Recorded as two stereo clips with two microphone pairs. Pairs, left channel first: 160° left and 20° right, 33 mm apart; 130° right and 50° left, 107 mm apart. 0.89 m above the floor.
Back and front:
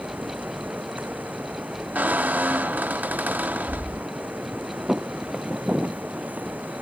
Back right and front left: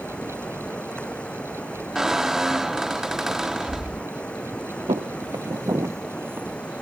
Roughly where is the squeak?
Ahead right.